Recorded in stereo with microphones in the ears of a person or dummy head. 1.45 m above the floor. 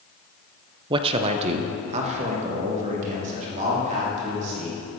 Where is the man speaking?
30° right (ahead or behind), 0.6 m; by 4.8 s 45° right (ahead or behind), 4.5 m.